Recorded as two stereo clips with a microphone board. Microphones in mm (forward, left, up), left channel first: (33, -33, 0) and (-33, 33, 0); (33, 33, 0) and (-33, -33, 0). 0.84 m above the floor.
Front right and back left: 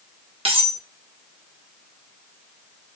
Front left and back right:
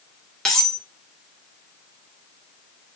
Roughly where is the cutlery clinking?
Behind left.